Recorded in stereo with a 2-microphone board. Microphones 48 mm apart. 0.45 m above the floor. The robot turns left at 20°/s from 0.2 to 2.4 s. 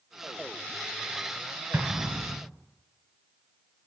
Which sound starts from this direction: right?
An explosion, at 1.7 s.